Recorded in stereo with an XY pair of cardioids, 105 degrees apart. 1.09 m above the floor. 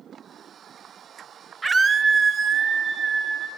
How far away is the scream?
About 0.9 m.